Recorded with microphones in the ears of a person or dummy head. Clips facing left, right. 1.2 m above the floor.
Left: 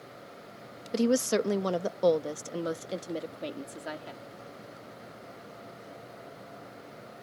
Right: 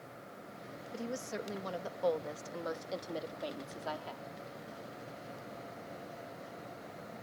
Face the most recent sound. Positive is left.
turn(degrees=25)  # may be behind; listen again after turning